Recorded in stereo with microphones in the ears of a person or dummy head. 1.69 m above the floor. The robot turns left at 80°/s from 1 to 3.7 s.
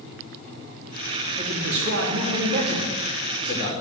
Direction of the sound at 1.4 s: 40° right.